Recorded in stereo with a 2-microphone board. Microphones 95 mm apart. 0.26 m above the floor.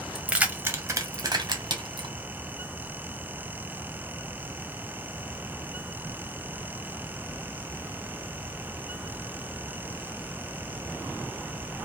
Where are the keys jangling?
5° right (ahead or behind), 0.7 m; by 2.1 s 60° right (ahead or behind), 1.3 m.